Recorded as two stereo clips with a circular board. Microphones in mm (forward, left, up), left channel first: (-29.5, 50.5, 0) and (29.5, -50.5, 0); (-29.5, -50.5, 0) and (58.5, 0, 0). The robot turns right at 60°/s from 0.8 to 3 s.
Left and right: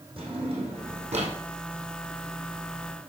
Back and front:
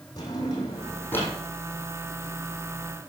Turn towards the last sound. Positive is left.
turn(degrees=30)